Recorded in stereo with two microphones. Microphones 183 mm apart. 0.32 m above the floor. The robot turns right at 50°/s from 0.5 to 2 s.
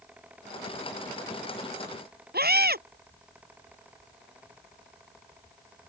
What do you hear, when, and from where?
2.3 s a scream: 60° right (ahead or behind)